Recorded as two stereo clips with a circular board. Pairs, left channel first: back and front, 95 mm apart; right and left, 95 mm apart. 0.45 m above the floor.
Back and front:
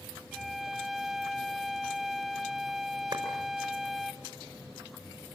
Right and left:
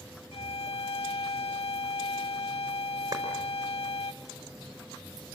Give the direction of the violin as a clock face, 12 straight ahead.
3 o'clock.